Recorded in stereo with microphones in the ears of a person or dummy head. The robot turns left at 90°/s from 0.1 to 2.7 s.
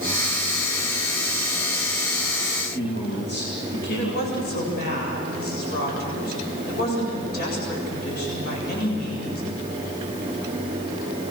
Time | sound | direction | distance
2.5 | a man speaking | 40° left (ahead or behind) | 2.5 m
3.9 | a woman speaking | 55° left (ahead or behind) | 7.5 m